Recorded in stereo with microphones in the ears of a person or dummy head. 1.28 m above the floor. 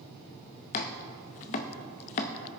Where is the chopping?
35° left (ahead or behind), 0.6 m.